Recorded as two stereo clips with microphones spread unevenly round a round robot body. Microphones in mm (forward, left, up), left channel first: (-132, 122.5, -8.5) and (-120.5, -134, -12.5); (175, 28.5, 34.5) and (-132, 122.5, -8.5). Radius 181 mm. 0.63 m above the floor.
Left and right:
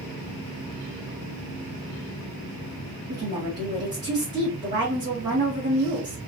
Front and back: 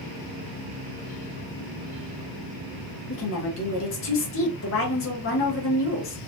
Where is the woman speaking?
30° right, 0.9 m.